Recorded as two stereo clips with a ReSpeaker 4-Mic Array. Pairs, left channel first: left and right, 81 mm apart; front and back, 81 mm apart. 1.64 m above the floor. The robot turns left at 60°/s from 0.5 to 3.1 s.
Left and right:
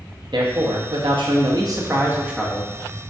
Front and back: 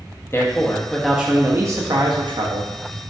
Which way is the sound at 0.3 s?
60° right.